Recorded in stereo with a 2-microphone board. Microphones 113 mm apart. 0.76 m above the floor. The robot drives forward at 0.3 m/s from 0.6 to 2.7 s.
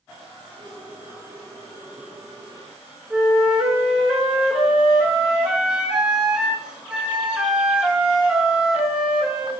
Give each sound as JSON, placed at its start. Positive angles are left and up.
{"t": 3.1, "sound": "a flute", "side_deg": -10, "distance_m": 1.0}